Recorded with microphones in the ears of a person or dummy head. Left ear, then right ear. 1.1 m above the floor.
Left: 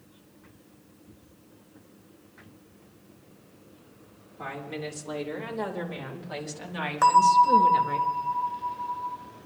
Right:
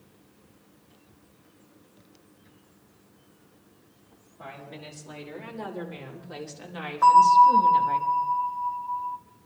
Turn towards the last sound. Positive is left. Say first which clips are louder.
# right 3 dB
turn(degrees=70)  # may be behind; listen again after turning